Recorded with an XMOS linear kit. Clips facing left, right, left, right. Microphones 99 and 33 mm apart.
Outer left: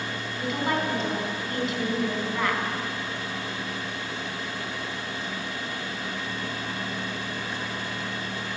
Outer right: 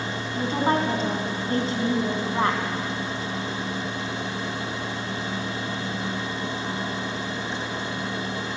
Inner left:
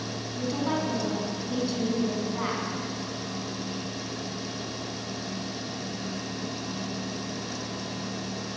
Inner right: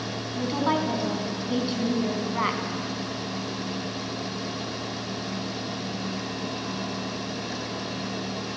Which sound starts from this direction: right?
A woman speaking, at 0.3 s.